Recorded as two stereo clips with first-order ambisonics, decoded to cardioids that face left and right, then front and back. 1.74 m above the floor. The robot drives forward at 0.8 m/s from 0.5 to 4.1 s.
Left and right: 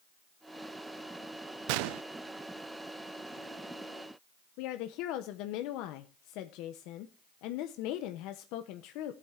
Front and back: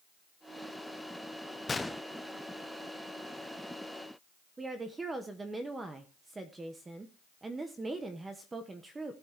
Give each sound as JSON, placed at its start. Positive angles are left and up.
{"t": 1.7, "sound": "a gunshot", "azimuth_deg": -75, "distance_m": 0.7}
{"t": 4.6, "sound": "a woman speaking", "azimuth_deg": 105, "distance_m": 1.0}